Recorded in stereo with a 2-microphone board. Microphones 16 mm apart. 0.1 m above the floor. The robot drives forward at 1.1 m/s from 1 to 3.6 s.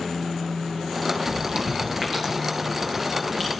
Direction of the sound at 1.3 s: 60° right (ahead or behind).